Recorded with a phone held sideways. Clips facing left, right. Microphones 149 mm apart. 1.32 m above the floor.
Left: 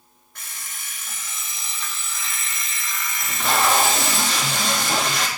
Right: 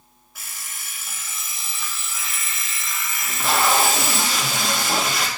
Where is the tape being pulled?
5° right (ahead or behind), 1.6 m.